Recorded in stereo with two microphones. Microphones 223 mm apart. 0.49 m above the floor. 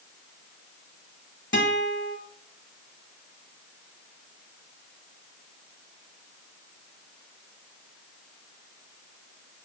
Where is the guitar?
65° left (ahead or behind), 1.2 m.